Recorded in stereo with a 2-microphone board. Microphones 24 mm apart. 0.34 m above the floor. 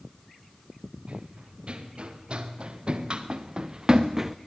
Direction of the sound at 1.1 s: 50° right (ahead or behind).